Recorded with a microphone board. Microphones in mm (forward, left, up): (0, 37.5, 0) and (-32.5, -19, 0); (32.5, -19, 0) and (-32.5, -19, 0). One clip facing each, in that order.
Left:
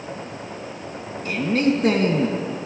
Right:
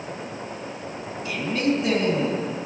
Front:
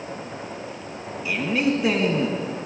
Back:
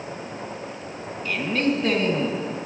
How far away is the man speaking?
About 2 m.